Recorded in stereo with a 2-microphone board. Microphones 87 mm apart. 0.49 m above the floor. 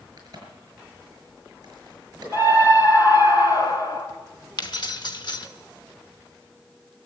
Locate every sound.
0.2 s a crack: 45° right (ahead or behind), 6 m
2.3 s a scream: 50° left (ahead or behind), 2.5 m
4.6 s keys jangling: 55° left (ahead or behind), 0.9 m